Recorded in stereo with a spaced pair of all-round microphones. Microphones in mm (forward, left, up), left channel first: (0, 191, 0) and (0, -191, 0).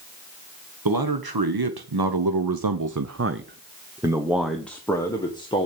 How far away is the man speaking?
About 1.3 m.